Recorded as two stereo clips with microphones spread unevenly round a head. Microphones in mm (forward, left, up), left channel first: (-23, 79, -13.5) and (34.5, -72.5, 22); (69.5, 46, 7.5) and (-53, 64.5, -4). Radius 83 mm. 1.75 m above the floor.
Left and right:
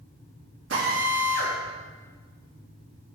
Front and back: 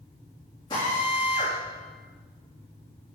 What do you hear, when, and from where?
0.7 s a drill: 75° right, 3 m